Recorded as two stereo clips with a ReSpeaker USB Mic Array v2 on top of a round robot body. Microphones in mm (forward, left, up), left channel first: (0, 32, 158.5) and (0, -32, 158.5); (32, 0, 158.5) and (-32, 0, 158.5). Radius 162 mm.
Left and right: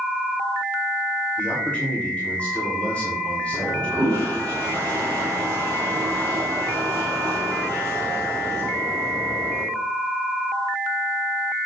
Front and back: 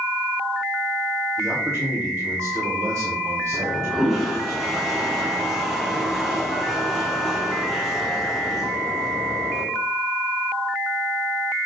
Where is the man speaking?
155° left, 2.5 m.